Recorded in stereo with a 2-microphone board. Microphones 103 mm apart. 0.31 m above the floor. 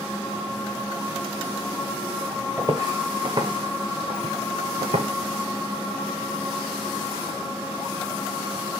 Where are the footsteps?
30° right (ahead or behind), 1.6 m; by 5.1 s 75° right (ahead or behind), 1.2 m.